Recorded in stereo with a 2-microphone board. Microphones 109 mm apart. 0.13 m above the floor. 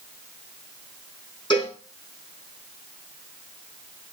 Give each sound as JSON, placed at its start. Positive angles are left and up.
{"t": 1.5, "sound": "a cowbell", "side_deg": 40, "distance_m": 6.5}